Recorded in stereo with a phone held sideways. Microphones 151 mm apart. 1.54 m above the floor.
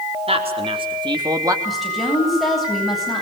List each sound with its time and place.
0.3 s a man speaking: 45° right (ahead or behind), 4.5 m; by 1.6 s 20° right (ahead or behind), 3 m
1.6 s a woman speaking: centre (ahead or behind), 8.5 m